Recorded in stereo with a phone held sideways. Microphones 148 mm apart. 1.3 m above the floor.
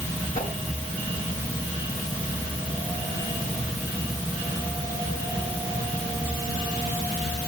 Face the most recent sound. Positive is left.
turn(degrees=65)  # may be behind; listen again after turning